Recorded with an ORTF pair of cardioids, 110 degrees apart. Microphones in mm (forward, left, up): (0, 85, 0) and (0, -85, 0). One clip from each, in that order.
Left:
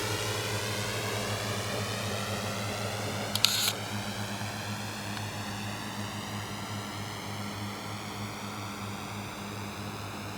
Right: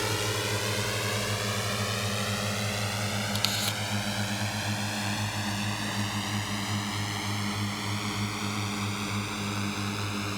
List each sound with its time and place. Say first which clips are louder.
0.0 s a drone: right 3 dB; 50° right
3.4 s a camera shutter: left 4 dB; 10° left